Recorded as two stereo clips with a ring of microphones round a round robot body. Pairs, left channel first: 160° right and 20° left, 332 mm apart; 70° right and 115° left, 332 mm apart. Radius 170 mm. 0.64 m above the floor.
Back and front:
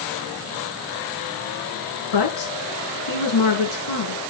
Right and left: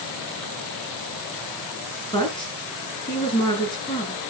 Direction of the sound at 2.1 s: 145° right.